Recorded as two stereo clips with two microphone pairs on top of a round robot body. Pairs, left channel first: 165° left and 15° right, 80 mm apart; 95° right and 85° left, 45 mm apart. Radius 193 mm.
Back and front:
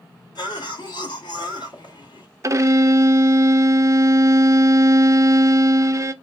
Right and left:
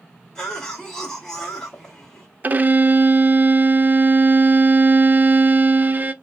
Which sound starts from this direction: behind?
A cough, at 0.3 s.